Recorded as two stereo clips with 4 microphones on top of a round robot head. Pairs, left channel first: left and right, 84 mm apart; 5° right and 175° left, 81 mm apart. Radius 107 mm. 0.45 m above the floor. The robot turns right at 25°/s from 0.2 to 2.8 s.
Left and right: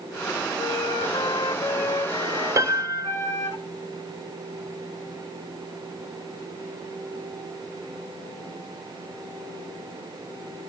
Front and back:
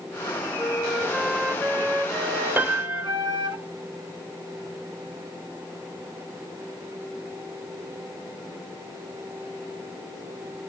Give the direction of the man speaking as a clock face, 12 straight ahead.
No man speaking in this recording.